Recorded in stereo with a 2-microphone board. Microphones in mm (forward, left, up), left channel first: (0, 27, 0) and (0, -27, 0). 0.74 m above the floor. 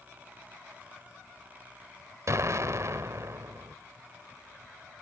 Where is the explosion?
55° right (ahead or behind), 0.8 m.